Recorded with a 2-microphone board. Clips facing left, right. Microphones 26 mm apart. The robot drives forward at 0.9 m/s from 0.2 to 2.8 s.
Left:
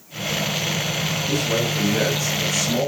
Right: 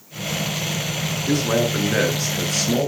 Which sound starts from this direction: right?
A man speaking, at 1.3 s.